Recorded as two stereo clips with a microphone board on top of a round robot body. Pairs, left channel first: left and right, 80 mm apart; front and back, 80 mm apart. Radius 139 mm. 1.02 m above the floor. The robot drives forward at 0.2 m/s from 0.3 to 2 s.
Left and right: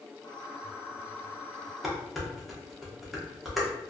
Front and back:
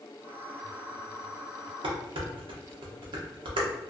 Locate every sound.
1.8 s dishes clattering: straight behind, 0.5 m